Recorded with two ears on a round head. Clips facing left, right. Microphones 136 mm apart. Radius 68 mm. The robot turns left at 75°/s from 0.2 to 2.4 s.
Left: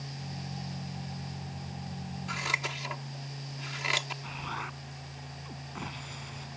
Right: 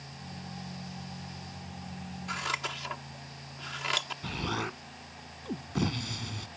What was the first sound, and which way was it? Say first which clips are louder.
Scissors: right 1 dB; centre (ahead or behind).